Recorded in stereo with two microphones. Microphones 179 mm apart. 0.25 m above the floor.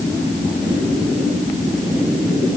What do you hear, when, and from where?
Only background noise.